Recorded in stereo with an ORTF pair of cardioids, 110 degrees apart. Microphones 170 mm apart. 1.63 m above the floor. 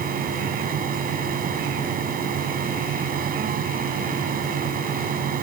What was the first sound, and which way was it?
A fan, 60° right.